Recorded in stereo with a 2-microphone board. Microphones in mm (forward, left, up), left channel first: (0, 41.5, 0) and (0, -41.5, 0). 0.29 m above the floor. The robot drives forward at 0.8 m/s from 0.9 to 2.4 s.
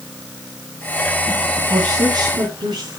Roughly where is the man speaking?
Right.